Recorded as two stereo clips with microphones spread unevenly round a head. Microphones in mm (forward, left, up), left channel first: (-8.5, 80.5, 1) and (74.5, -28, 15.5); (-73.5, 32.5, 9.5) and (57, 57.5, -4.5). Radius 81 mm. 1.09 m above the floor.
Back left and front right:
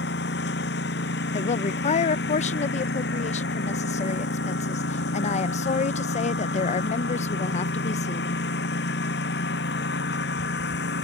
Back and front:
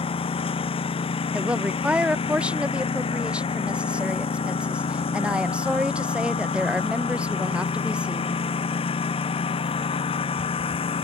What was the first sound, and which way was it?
A lawn mower, 145° left.